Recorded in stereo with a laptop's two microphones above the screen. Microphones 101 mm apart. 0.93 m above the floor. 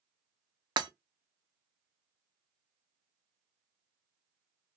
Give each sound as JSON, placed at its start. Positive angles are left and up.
{"t": 0.8, "sound": "breaking glass", "side_deg": -45, "distance_m": 0.6}